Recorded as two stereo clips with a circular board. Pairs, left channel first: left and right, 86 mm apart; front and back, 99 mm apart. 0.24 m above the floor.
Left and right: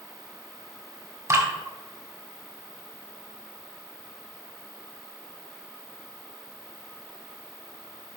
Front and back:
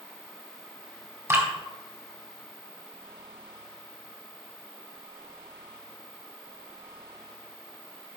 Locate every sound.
1.3 s dripping: 125° right, 2 m